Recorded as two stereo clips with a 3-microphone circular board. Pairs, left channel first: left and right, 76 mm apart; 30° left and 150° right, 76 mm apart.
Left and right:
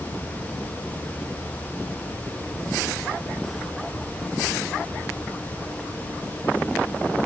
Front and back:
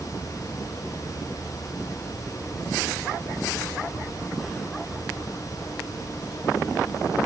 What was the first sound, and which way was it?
Only background noise.